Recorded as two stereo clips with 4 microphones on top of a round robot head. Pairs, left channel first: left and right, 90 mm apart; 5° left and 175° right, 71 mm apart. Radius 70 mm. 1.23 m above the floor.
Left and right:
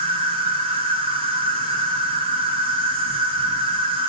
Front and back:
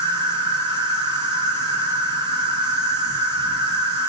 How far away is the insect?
About 0.9 m.